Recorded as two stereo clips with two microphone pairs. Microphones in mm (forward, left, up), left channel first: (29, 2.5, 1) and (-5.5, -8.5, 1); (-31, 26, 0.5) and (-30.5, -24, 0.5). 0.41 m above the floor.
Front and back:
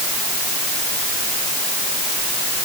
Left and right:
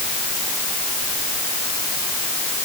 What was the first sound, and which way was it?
Only background noise.